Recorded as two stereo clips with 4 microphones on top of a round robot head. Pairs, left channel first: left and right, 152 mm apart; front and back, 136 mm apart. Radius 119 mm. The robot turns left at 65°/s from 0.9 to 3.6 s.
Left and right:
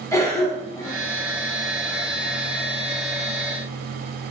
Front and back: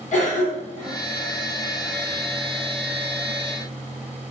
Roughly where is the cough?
Ahead.